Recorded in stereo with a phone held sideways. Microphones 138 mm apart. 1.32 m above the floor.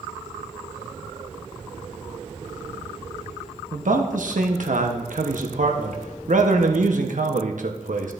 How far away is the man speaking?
About 1.2 m.